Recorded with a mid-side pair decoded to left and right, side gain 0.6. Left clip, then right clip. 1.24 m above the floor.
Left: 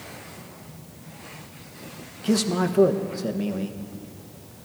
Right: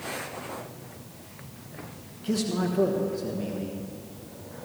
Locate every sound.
2.2 s a man speaking: 40° left, 1.1 m